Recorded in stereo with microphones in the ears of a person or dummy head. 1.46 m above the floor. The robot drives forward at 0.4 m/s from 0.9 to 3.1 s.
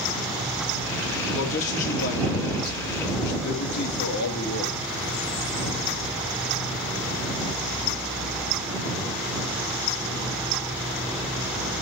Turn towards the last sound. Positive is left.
turn(degrees=55)  # may be behind; listen again after turning